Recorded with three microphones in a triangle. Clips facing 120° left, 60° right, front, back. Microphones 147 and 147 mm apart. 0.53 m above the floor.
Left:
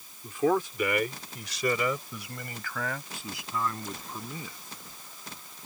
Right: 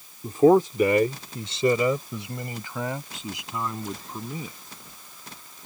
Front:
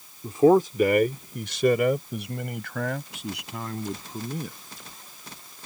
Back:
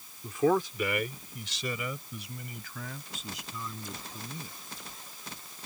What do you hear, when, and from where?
0.2 s a man speaking: 40° right; by 4.6 s 10° left